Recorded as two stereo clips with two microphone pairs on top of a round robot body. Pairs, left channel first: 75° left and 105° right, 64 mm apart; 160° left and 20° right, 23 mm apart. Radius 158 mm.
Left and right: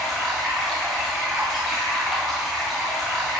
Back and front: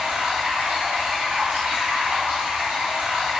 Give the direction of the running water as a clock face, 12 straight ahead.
12 o'clock.